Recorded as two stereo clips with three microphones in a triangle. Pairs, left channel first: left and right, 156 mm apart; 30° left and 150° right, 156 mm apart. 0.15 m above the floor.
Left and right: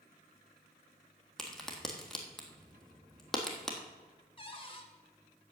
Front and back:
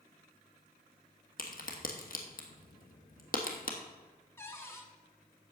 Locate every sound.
1.4 s a crack: 5° left, 1.6 m
4.4 s a cupboard door: 90° left, 1.2 m